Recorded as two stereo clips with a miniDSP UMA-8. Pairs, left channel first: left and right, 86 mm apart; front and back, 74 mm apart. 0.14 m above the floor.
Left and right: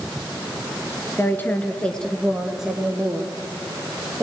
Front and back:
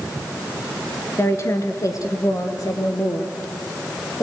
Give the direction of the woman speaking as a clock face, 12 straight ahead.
11 o'clock.